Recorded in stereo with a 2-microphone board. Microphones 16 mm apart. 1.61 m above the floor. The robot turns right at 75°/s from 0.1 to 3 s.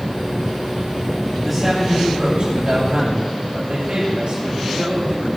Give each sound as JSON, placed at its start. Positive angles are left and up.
{"t": 1.4, "sound": "a man speaking", "azimuth_deg": 170, "distance_m": 7.5}